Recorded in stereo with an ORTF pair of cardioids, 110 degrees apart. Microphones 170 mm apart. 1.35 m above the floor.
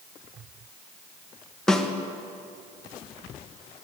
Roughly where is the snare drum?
Ahead.